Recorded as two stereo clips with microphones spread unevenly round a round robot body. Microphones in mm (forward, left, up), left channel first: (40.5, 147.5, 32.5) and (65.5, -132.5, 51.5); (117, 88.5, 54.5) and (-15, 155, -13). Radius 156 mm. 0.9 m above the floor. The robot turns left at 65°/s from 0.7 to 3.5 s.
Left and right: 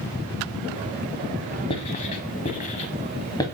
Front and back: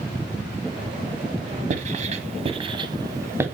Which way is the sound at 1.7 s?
145° left.